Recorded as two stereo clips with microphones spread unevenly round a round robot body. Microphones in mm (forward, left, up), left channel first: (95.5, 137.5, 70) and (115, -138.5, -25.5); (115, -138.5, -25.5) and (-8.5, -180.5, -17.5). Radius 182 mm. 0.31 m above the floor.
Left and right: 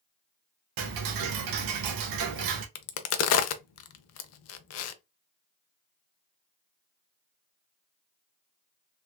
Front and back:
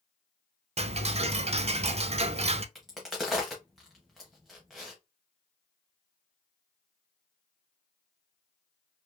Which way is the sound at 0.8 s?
110° right.